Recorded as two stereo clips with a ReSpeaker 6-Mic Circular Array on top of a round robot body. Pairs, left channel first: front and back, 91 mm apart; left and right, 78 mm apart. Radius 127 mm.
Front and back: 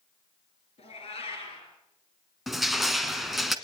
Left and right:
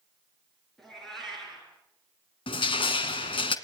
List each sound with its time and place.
0.8 s a cat meowing: 5° left, 7 m
2.5 s crushing: 95° left, 1.4 m